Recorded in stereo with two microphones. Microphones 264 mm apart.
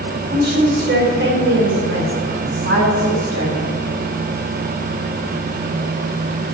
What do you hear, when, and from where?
0.3 s a woman speaking: 35° right (ahead or behind), 4 m; by 3.8 s 60° right (ahead or behind), 5 m